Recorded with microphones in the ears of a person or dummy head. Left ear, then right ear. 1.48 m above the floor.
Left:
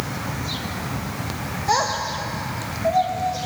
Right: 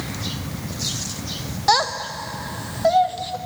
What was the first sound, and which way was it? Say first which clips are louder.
A child speaking: right 2 dB; 35° right (ahead or behind).